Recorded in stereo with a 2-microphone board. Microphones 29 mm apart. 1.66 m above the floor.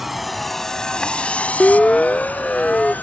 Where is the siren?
40° left (ahead or behind); by 2.9 s 35° left (ahead or behind).